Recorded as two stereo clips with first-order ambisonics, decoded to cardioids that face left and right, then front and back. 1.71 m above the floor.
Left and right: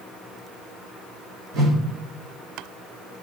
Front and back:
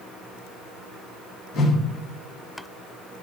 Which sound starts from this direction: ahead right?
A whoosh, at 1.5 s.